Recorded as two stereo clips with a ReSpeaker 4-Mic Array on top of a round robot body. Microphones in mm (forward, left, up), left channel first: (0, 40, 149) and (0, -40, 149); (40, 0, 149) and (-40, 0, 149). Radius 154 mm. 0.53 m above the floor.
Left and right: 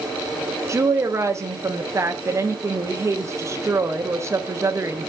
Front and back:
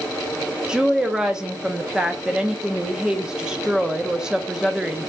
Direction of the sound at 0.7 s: 105° right.